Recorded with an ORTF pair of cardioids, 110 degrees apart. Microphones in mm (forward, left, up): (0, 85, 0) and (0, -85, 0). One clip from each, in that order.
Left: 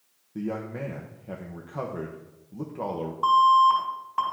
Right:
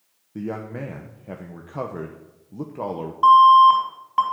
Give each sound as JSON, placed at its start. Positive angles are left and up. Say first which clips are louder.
{"t": 0.3, "sound": "a man speaking", "louder": "right 2 dB", "azimuth_deg": -15, "distance_m": 0.8}
{"t": 3.2, "sound": "an alarm", "louder": "right 7 dB", "azimuth_deg": -35, "distance_m": 4.0}